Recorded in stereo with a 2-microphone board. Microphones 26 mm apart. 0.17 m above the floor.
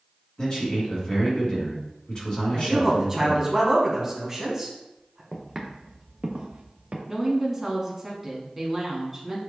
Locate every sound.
0.4 s a man speaking: 35° left (ahead or behind), 1.9 m
2.5 s a man speaking: 20° right (ahead or behind), 1.1 m
5.3 s footsteps: centre (ahead or behind), 1.1 m; by 7.0 s 70° right (ahead or behind), 1.8 m
7.1 s a woman speaking: 5° right (ahead or behind), 1.3 m